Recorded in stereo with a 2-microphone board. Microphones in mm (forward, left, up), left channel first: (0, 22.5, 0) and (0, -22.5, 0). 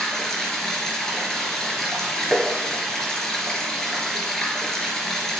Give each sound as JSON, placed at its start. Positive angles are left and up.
{"t": 0.0, "sound": "running water", "side_deg": 10, "distance_m": 3.0}
{"t": 2.3, "sound": "tapping", "side_deg": 0, "distance_m": 2.0}